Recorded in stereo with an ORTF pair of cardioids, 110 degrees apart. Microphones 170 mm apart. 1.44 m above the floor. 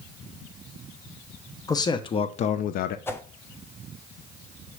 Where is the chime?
I don't hear a chime.